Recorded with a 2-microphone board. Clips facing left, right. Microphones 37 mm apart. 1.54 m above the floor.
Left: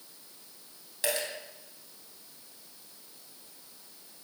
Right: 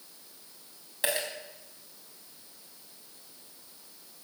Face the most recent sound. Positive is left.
turn(degrees=-20)  # may be behind; listen again after turning